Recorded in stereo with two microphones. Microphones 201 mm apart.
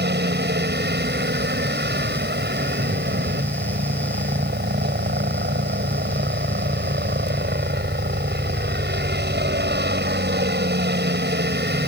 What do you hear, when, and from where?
0.0 s a helicopter: 55° right (ahead or behind)